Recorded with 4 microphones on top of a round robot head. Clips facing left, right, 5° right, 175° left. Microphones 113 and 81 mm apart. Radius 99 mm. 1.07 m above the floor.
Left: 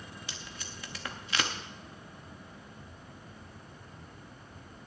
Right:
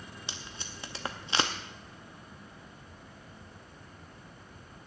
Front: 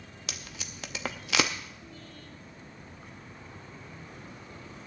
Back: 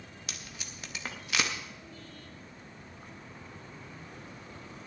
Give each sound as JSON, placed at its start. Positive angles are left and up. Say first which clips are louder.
{"t": 0.3, "sound": "tape being pulled", "louder": "right 1 dB, front 4 dB", "azimuth_deg": -20, "distance_m": 0.6}